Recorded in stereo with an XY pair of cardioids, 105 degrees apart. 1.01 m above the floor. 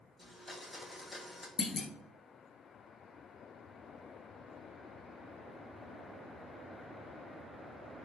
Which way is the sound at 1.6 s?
45° left.